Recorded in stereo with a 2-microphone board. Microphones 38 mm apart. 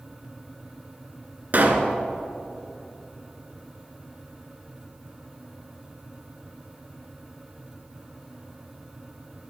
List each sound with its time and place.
1.5 s a pop: 50° right (ahead or behind), 1.6 m